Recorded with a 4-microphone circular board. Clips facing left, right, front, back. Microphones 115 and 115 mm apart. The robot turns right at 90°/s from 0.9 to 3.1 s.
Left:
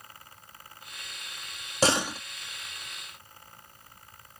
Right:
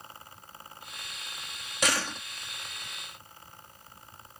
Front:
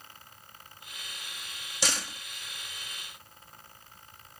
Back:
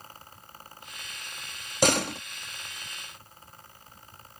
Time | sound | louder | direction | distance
1.8 | a door slam | left 5 dB, back 11 dB | 145° left | ?